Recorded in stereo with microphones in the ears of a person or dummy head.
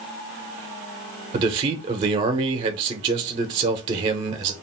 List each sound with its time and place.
1.3 s a man speaking: 35° right (ahead or behind), 0.8 m